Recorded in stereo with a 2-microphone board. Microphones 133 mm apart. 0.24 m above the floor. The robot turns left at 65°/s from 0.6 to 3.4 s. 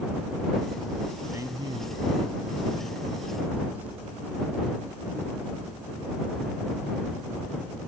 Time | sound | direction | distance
1.3 | a man speaking | 25° right | ?